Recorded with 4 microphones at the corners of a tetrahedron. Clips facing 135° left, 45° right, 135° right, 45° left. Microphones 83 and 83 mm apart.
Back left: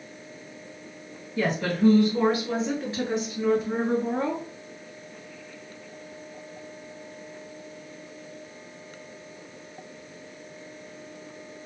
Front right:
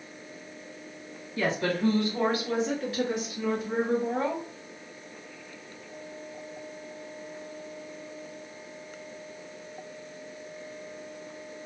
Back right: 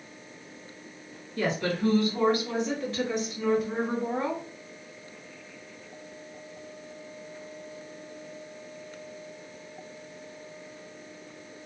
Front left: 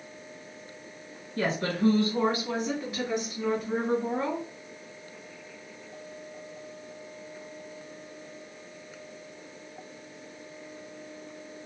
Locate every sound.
1.4 s a woman speaking: 70° left, 1.6 m; by 4.4 s 160° left, 1.5 m